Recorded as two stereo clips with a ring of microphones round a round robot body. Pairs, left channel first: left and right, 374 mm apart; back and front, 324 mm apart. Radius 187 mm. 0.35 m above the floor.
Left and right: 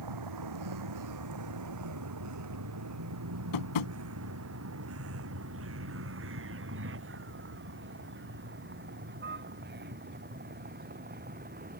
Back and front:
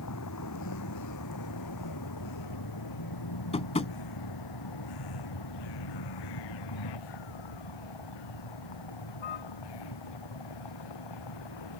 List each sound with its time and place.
0.0 s a vehicle: 130° right; by 11.8 s 160° right
3.5 s tapping: 105° left